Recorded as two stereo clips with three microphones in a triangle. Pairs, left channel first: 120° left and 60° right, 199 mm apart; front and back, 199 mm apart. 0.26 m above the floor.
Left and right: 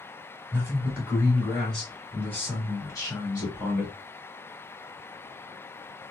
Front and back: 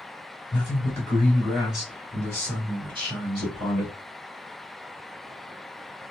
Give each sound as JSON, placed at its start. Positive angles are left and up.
{"t": 0.5, "sound": "a man speaking", "azimuth_deg": -5, "distance_m": 1.6}